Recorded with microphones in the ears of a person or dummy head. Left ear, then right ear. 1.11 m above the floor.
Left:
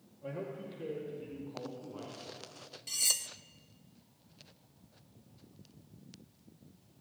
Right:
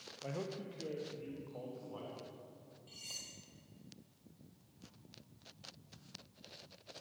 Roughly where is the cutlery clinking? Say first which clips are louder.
Left 15 dB; left.